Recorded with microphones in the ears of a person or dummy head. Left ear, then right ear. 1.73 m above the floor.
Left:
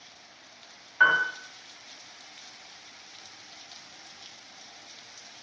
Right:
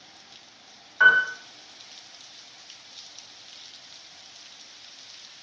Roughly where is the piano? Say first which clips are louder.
Right 4 dB; centre.